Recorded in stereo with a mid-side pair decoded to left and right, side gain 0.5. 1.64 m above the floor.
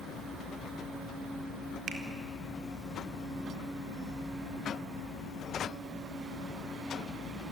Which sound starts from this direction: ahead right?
A finger snap, at 1.9 s.